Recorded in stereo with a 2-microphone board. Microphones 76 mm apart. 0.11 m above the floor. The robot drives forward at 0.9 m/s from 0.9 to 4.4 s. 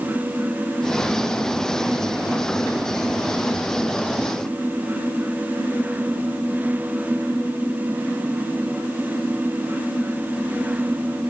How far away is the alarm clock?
I don't hear an alarm clock.